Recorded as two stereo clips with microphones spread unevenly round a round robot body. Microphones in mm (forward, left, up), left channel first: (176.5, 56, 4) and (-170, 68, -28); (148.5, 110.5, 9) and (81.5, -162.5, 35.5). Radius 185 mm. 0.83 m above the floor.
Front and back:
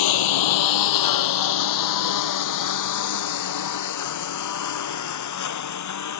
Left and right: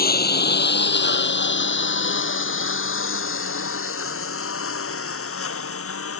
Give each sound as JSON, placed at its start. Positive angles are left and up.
{"t": 0.0, "sound": "a lawn mower", "azimuth_deg": 20}